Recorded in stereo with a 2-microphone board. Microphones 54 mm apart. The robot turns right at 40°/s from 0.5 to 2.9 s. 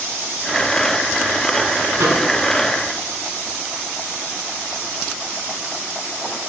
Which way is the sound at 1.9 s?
60° right (ahead or behind).